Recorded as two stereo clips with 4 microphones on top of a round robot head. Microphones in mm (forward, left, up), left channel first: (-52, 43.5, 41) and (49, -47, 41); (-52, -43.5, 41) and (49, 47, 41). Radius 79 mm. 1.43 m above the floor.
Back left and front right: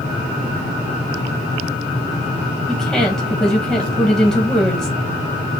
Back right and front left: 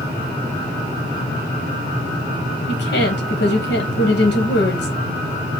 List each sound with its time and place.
2.7 s a woman speaking: 130° right, 1.1 m